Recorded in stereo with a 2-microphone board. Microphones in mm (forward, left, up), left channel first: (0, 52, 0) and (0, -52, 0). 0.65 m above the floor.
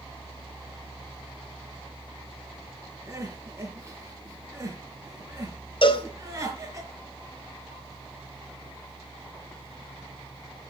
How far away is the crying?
About 6.5 m.